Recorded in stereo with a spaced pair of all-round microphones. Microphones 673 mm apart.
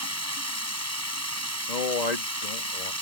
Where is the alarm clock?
I don't hear an alarm clock.